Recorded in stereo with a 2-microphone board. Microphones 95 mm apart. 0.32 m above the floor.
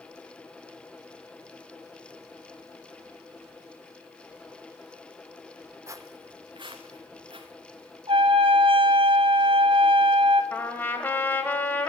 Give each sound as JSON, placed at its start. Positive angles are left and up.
{"t": 5.9, "sound": "footsteps", "side_deg": -30, "distance_m": 0.8}
{"t": 8.1, "sound": "a trumpet", "side_deg": -80, "distance_m": 1.3}
{"t": 10.5, "sound": "a trumpet", "side_deg": 20, "distance_m": 1.6}